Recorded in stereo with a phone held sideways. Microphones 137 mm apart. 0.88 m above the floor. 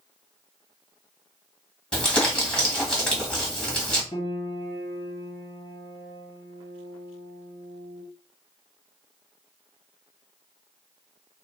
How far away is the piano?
About 1.4 m.